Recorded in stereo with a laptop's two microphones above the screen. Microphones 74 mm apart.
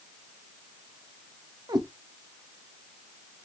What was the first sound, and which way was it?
A cat meowing, 75° right (ahead or behind).